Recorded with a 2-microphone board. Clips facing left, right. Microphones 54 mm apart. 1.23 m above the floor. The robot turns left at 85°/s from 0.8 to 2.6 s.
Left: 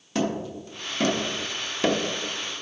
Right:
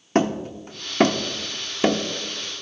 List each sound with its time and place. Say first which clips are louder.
0.1 s hammering: right 5 dB; 40° right (ahead or behind), 0.7 m; by 2.0 s 10° right (ahead or behind), 0.7 m